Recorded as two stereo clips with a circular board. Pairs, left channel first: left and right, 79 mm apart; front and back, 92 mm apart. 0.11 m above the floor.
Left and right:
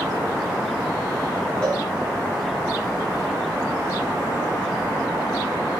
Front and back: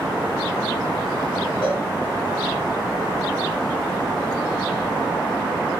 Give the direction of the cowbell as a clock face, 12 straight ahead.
12 o'clock.